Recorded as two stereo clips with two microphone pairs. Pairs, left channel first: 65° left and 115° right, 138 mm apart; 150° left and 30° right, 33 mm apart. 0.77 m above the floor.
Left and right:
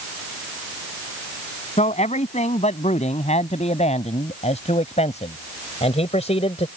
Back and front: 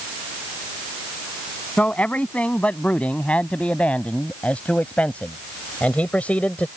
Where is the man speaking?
100° left; by 6.7 s 105° left.